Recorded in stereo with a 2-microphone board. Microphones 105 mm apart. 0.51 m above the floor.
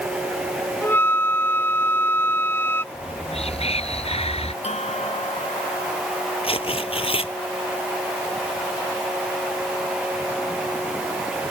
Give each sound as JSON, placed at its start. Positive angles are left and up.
{"t": 0.8, "sound": "a flute", "side_deg": 20}
{"t": 2.9, "sound": "whispering", "side_deg": 75}
{"t": 4.6, "sound": "a bell", "side_deg": 90}
{"t": 6.4, "sound": "tearing paper", "side_deg": 65}